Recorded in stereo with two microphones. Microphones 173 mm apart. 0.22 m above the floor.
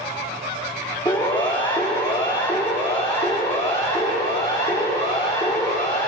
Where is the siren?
25° left (ahead or behind), 7 m; by 6.1 s 35° left (ahead or behind), 10.5 m.